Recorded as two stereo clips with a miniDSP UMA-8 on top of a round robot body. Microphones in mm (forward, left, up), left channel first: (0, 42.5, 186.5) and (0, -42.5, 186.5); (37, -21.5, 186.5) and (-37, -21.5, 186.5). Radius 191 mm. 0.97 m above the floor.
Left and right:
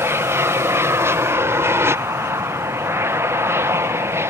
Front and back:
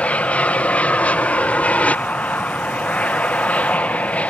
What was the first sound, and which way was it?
An aircraft, 60° right.